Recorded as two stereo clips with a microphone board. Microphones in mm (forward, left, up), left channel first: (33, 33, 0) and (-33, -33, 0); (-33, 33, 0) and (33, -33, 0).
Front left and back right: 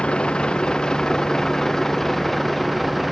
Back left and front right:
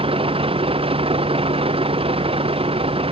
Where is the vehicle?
35° right; by 3.1 s 45° right.